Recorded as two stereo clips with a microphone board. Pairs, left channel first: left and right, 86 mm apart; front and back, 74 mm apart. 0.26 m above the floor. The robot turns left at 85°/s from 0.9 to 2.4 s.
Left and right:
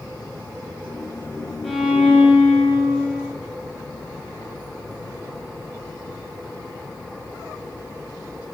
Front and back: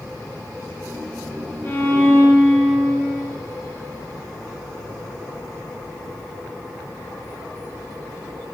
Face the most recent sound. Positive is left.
turn(degrees=-65)